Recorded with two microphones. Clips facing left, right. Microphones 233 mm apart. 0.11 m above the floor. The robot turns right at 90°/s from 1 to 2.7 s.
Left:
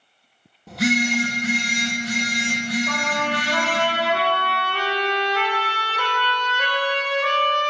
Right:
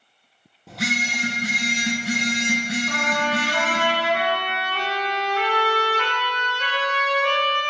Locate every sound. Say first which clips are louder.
0.7 s a phone buzzing: left 8 dB; straight behind, 1.4 m; by 3.9 s 25° right, 1.4 m
2.9 s a trumpet: even; 70° left (ahead or behind), 2.5 m